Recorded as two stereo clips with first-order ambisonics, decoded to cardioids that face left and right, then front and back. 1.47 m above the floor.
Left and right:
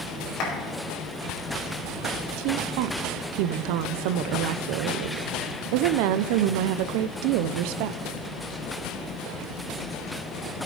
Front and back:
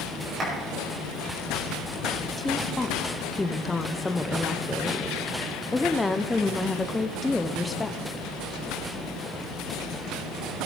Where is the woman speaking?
85° right, 0.5 m.